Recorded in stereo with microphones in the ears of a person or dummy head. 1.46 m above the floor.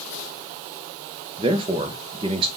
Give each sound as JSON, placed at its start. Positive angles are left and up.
{"t": 1.4, "sound": "a man speaking", "side_deg": -25, "distance_m": 1.0}